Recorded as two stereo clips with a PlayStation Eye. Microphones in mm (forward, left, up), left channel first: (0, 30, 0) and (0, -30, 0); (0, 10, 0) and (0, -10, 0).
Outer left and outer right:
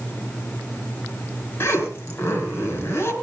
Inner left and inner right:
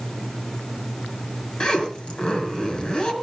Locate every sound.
1.6 s a zipper: 40° left (ahead or behind), 4.5 m